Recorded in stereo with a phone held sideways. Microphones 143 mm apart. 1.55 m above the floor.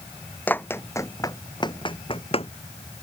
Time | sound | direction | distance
0.5 | running footsteps | 10° left (ahead or behind) | ?